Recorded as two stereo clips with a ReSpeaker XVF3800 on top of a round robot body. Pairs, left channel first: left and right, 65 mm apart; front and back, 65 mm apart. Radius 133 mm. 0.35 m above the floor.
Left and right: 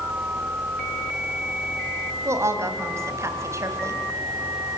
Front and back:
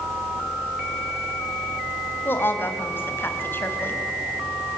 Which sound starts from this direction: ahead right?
A woman speaking, at 2.2 s.